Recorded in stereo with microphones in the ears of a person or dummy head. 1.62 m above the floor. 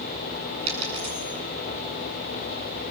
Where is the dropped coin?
35° right (ahead or behind), 7.5 m.